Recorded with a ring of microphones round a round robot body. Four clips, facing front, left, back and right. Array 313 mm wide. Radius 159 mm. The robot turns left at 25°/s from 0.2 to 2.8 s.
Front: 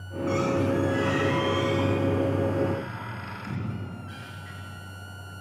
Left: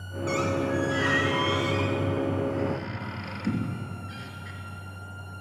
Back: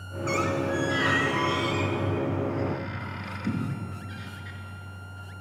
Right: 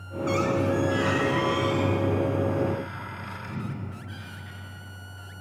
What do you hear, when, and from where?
0.3 s a squeak: 165° right, 3.5 m; by 4.6 s 130° left, 3.5 m